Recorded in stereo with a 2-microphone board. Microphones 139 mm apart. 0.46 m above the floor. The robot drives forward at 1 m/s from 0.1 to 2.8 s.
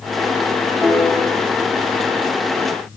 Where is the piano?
10° left (ahead or behind), 3 m.